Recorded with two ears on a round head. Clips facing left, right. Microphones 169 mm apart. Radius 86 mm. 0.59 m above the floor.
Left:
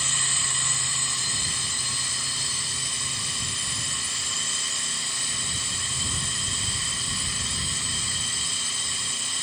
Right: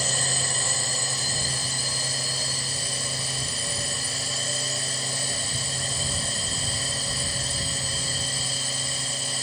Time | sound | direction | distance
0.0 | a drone | 35° right (ahead or behind) | ?